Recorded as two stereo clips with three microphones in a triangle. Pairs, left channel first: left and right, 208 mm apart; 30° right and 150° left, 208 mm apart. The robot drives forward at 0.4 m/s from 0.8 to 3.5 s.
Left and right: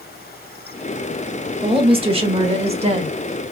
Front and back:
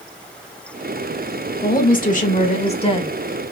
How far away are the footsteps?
I don't hear footsteps.